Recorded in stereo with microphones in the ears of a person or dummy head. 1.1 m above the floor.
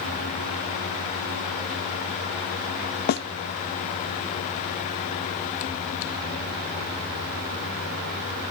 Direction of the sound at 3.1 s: 45° left (ahead or behind).